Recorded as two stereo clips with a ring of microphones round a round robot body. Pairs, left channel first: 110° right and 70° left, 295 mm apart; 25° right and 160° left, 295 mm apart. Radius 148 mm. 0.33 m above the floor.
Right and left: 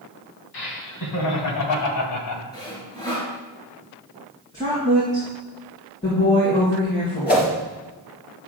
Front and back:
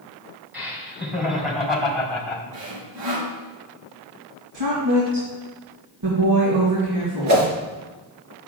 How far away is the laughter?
About 2.5 m.